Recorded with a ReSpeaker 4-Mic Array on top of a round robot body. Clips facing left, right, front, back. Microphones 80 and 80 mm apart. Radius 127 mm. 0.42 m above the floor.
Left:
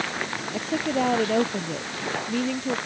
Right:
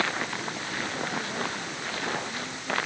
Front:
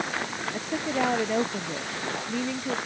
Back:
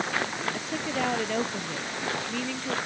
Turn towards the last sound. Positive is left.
turn(degrees=75)